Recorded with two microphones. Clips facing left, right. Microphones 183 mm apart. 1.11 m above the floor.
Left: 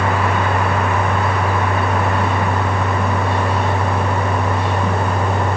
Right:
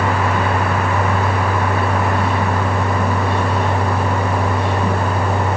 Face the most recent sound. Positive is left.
No sound to turn to.